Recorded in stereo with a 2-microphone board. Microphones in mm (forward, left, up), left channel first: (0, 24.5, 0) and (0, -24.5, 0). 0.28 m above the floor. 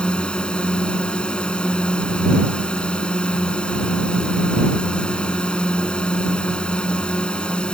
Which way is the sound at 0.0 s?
20° left (ahead or behind).